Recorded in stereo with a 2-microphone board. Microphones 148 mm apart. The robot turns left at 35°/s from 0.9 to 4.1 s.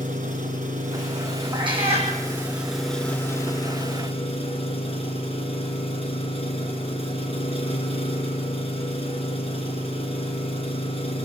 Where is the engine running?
115° right, 3.5 m; by 11.3 s 135° left, 3.5 m.